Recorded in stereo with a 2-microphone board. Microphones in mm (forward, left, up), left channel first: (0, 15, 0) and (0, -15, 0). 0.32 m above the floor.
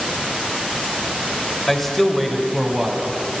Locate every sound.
1.7 s a man speaking: 10° left (ahead or behind), 1.4 m; by 3.1 s 10° right (ahead or behind), 2.5 m